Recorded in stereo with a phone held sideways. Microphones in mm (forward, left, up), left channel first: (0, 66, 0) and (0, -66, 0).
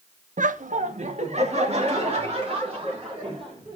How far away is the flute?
I don't hear a flute.